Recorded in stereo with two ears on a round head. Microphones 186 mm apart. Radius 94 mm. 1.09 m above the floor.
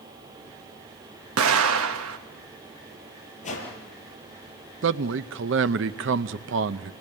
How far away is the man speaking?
About 0.6 m.